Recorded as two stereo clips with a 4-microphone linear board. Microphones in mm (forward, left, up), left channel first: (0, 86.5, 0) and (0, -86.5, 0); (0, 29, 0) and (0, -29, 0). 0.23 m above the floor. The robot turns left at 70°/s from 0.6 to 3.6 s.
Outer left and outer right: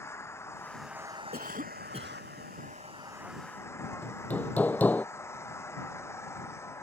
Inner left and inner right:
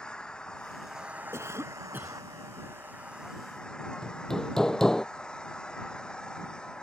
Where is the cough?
95° right; by 2.2 s 160° right.